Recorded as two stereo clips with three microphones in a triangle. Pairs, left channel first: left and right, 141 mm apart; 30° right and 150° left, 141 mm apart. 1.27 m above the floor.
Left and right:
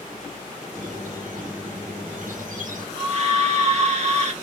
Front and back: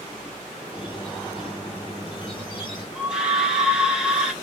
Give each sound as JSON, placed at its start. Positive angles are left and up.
{"t": 0.7, "sound": "a squeak", "azimuth_deg": -80, "distance_m": 1.5}
{"t": 3.0, "sound": "a scream", "azimuth_deg": -125, "distance_m": 2.0}